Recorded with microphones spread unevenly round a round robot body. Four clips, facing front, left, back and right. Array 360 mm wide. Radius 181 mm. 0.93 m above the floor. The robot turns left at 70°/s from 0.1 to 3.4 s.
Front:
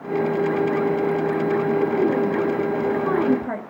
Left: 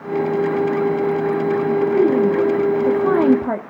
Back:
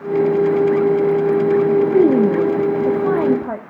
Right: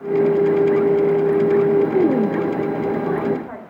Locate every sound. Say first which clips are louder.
1.8 s a woman speaking: left 1 dB, back 7 dB; 150° right, 1.6 m; by 3.6 s 95° left, 1.6 m